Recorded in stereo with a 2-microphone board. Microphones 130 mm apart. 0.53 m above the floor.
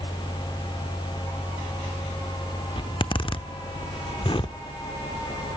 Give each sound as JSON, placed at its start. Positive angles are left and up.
{"t": 2.8, "sound": "a zipper", "side_deg": 40, "distance_m": 0.8}